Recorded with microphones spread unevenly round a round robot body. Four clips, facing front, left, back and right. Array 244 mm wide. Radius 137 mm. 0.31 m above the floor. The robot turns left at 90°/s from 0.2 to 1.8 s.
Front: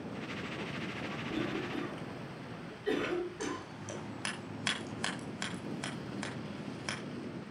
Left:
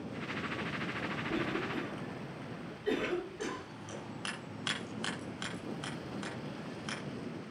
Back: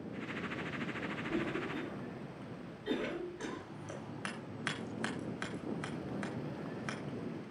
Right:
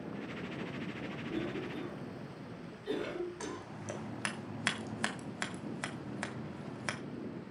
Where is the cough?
90° left, 6.5 m; by 3.6 s 45° left, 6.5 m.